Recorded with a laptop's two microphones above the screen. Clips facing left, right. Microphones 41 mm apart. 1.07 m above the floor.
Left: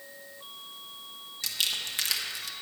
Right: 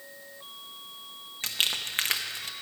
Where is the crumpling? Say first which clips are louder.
Right 2 dB; 40° right (ahead or behind), 0.8 m.